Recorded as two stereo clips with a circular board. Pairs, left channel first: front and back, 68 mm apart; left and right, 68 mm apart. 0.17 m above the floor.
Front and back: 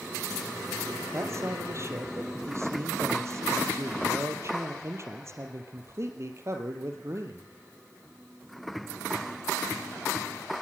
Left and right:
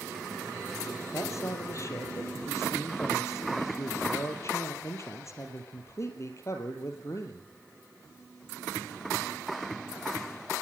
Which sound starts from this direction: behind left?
A man speaking, at 1.1 s.